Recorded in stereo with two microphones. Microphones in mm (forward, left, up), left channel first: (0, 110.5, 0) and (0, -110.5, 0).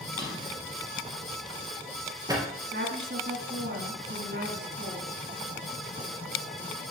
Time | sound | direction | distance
0.2 | a drawer | 15° right (ahead or behind) | 2.5 m
2.7 | a woman speaking | 50° right (ahead or behind) | 2 m